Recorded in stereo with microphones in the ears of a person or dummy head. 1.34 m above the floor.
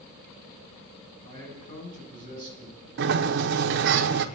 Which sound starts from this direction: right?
A sliding door, at 3.0 s.